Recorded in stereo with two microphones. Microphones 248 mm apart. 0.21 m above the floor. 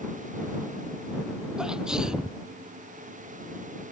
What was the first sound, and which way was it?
A sneeze, 5° right (ahead or behind).